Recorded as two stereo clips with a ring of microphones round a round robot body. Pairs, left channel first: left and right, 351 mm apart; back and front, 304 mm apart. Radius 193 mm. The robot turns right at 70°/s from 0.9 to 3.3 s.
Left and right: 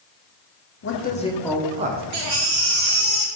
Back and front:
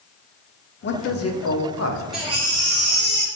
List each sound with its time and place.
0.8 s a man speaking: 135° left, 1.0 m; by 2.0 s 145° right, 1.0 m
2.1 s a baby crying: 90° right, 1.5 m; by 3.3 s 10° right, 1.5 m